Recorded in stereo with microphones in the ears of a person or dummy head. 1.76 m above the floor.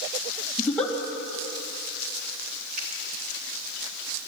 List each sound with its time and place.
0.6 s a giggle: 5° left (ahead or behind), 2.5 m
2.8 s a finger snap: 45° right (ahead or behind), 3.5 m